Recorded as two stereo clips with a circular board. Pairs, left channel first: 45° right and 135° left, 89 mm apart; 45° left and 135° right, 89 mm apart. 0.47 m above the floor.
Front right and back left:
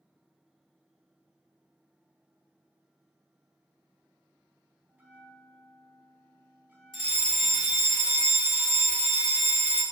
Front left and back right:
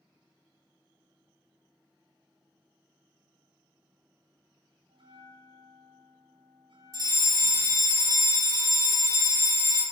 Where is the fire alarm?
120° right, 2.5 m.